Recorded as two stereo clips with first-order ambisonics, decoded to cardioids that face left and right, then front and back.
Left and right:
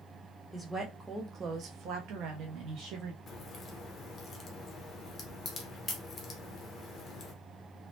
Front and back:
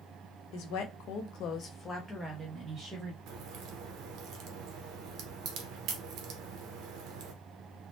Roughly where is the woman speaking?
Ahead.